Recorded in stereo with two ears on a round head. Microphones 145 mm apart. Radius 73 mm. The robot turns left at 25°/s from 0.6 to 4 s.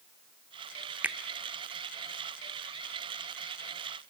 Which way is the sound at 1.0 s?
10° right (ahead or behind).